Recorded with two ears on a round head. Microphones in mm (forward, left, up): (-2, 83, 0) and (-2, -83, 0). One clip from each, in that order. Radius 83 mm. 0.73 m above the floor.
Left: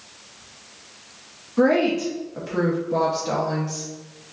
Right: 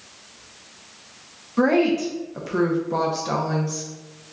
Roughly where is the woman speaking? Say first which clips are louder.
Even; centre.